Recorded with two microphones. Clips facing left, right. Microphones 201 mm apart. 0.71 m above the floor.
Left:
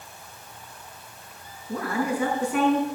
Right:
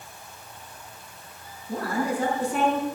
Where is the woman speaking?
35° right (ahead or behind), 6 m.